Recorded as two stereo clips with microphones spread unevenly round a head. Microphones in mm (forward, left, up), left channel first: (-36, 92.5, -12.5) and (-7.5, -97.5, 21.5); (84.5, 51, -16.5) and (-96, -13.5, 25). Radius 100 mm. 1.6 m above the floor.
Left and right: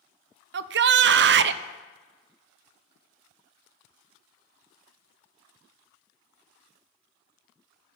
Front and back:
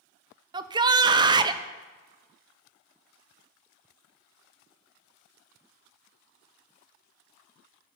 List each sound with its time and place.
0.5 s a shout: 100° right, 0.5 m